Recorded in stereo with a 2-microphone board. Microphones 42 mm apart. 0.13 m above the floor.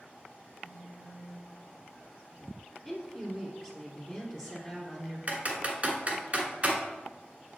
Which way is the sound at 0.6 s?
45° right (ahead or behind).